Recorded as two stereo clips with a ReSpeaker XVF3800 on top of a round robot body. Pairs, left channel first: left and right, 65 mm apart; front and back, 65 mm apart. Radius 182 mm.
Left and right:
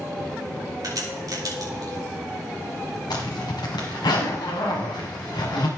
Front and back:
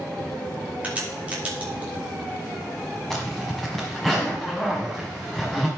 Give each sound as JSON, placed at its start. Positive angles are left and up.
{"t": 0.8, "sound": "a crack", "azimuth_deg": -110, "distance_m": 3.0}
{"t": 3.1, "sound": "a zipper", "azimuth_deg": 85, "distance_m": 1.3}